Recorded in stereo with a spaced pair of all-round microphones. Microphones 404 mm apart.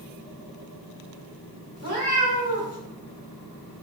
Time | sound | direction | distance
1.8 | a cat meowing | 40° left (ahead or behind) | 1.2 m